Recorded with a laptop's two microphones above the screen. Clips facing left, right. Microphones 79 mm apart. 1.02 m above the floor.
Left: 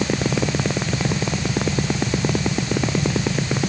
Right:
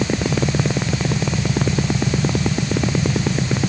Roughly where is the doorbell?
No doorbell in this recording.